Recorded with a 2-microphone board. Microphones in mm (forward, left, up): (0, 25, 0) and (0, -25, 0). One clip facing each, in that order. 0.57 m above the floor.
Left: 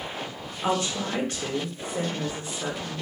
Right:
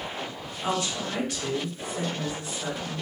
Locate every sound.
0.6 s a woman speaking: 35° left (ahead or behind), 1.9 m